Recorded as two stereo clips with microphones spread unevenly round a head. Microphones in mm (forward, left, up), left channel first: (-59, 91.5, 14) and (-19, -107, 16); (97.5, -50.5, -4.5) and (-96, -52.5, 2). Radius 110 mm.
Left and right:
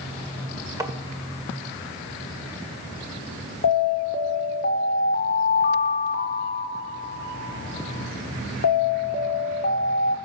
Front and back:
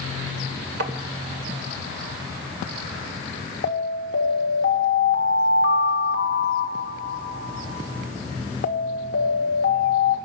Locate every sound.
0.8 s tapping: 155° right, 1.8 m
3.6 s an alarm: 50° left, 1.7 m